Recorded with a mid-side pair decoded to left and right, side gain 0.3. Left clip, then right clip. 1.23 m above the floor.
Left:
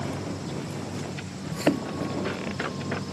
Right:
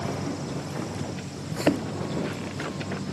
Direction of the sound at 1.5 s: 5° right.